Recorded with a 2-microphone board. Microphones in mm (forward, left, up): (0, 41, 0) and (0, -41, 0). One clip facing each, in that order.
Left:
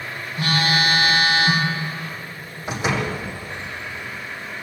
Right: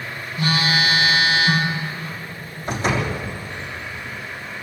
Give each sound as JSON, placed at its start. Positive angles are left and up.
{"t": 0.4, "sound": "a phone buzzing", "side_deg": 60, "distance_m": 10.0}
{"t": 2.7, "sound": "a door slam", "side_deg": 10, "distance_m": 6.0}